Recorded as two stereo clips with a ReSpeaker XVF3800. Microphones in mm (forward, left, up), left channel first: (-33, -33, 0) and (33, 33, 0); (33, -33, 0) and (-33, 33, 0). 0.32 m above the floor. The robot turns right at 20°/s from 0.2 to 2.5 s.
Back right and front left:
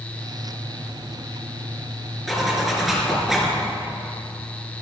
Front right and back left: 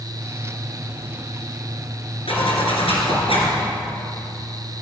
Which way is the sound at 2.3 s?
45° right.